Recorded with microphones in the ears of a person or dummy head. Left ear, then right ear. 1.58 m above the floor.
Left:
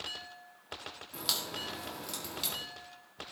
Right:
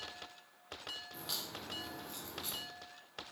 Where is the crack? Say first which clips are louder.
Left 11 dB; 55° left (ahead or behind), 2 m.